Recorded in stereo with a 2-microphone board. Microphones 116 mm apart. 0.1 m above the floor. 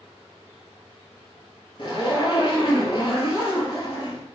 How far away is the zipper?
About 1.0 m.